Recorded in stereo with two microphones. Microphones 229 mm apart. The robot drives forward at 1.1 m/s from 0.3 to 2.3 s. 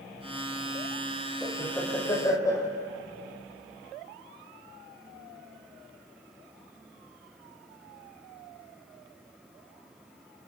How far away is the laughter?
About 4.5 m.